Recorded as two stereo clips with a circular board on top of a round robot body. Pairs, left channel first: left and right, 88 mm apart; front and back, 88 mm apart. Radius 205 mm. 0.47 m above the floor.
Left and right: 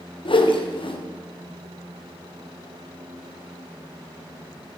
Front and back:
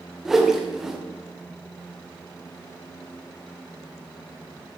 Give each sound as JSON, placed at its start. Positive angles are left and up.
{"t": 0.2, "sound": "a whoosh", "azimuth_deg": 95, "distance_m": 2.5}